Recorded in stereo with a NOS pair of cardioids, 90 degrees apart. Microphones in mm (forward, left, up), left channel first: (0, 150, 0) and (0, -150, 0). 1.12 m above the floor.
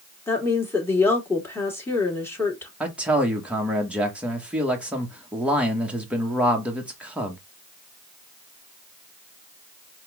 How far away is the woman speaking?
About 2.5 m.